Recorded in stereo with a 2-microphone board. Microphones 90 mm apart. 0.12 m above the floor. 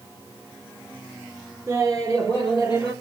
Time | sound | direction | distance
1.7 | laughter | 35° right (ahead or behind) | 2 m